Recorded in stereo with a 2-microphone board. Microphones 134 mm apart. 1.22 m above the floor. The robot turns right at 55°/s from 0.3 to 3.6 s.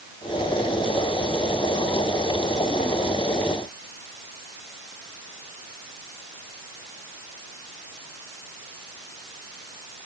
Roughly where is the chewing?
I don't hear chewing.